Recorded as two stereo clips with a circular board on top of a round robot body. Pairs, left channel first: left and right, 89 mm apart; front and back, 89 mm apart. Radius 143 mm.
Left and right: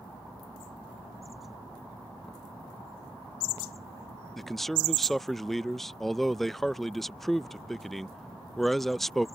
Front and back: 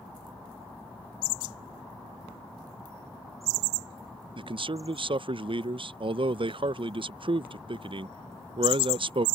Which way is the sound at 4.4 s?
Straight behind.